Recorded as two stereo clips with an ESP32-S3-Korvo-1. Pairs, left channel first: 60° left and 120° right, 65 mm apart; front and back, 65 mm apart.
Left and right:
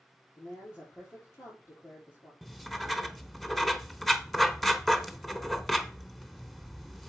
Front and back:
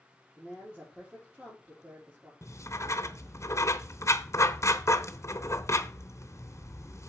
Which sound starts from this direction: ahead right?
Writing, at 2.4 s.